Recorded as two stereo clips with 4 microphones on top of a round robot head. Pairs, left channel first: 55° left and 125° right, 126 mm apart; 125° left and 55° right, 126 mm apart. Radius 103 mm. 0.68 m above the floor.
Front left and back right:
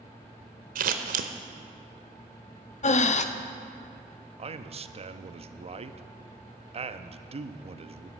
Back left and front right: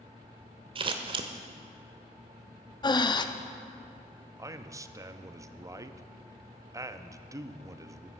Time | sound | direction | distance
0.8 | scissors | 110° right | 0.7 m
2.8 | breathing | 70° left | 0.8 m
4.4 | a man speaking | 115° right | 0.8 m